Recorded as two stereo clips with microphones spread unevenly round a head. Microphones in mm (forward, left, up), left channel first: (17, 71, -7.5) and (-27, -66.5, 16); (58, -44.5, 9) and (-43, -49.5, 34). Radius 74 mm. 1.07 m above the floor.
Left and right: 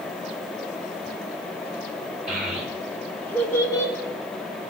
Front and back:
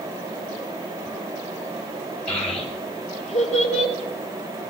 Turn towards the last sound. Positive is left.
turn(degrees=5)